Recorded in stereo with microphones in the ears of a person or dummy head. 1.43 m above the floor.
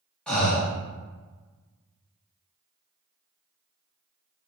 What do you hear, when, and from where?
0.3 s breathing: 5° left (ahead or behind), 0.9 m